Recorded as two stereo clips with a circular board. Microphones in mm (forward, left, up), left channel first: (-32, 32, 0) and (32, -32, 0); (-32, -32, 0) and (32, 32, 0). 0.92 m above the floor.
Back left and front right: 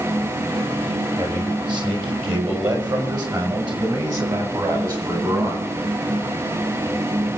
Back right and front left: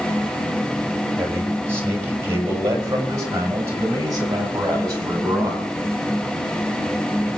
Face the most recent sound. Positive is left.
turn(degrees=-5)